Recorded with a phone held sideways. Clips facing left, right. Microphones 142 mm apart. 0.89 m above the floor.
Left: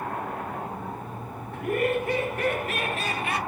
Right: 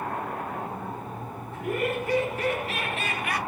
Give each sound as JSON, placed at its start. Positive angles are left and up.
{"t": 1.5, "sound": "laughter", "side_deg": 60, "distance_m": 1.8}